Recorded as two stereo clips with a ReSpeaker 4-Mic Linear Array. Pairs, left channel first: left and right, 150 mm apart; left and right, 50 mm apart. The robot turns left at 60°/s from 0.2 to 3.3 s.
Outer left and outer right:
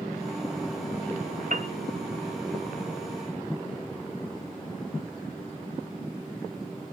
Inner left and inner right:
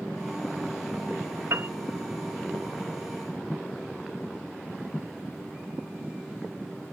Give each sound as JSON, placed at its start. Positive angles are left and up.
{"t": 1.5, "sound": "a piano", "side_deg": -60, "distance_m": 1.0}